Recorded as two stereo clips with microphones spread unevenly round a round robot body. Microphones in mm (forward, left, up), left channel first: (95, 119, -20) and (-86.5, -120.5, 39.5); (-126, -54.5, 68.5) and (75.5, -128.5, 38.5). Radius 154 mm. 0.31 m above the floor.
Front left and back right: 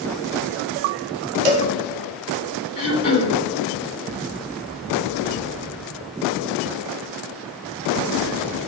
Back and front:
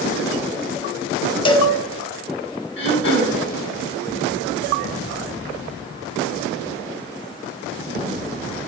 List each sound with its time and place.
1.4 s a cowbell: 130° right, 0.9 m
2.8 s throat clearing: 120° left, 1.8 m